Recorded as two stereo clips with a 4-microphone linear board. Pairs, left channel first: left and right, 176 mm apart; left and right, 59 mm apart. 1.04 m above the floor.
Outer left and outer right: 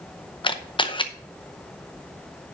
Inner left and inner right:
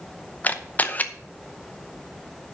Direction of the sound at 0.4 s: 30° left (ahead or behind).